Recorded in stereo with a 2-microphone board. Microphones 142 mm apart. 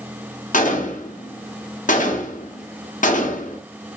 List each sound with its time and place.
0.5 s a gunshot: 65° left (ahead or behind), 0.5 m